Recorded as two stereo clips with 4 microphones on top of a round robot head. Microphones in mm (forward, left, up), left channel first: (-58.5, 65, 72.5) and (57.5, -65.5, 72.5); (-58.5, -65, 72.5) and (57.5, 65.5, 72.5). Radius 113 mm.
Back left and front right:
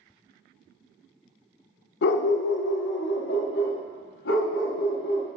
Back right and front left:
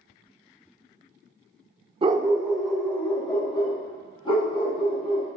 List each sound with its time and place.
2.0 s a dog barking: 110° left, 0.5 m; by 5.3 s 170° left, 2.5 m